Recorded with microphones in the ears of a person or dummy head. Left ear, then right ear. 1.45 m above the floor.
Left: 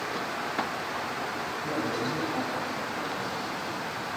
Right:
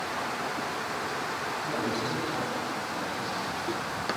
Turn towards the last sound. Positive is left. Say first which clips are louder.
# left 2 dB
turn(degrees=80)